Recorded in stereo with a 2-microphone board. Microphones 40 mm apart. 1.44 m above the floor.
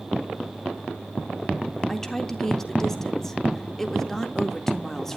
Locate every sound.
1.9 s a woman speaking: 10° left (ahead or behind), 1.8 m